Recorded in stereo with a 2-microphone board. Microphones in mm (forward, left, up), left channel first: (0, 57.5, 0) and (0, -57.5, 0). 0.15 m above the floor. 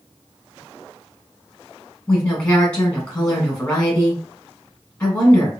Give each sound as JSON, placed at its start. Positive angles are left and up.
{"t": 2.1, "sound": "a woman speaking", "side_deg": 10, "distance_m": 1.1}